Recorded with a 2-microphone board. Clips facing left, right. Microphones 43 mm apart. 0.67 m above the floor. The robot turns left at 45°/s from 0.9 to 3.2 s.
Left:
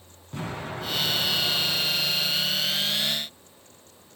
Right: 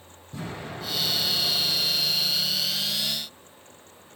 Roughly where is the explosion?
Behind left.